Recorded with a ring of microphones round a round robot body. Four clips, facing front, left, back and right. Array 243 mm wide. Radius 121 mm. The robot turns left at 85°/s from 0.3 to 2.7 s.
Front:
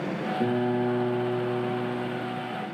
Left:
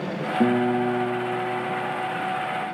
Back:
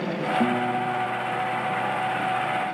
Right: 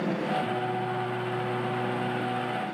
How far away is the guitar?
About 2.5 m.